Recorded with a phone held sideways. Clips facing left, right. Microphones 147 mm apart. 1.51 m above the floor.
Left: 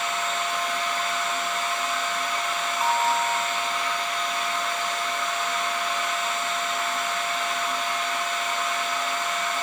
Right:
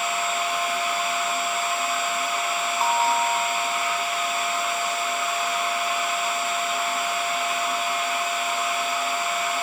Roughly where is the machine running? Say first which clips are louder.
Right 2 dB; centre.